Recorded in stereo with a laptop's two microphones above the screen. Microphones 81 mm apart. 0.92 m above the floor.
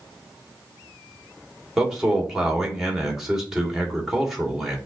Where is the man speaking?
5° right (ahead or behind), 1.7 m.